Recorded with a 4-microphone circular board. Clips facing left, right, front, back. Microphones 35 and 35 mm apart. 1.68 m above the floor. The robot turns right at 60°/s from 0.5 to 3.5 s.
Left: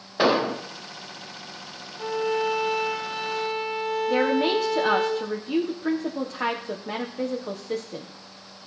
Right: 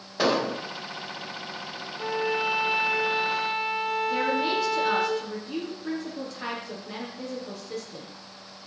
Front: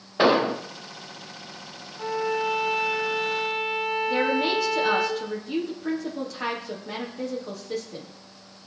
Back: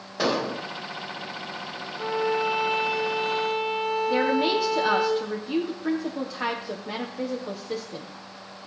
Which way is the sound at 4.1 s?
105° left.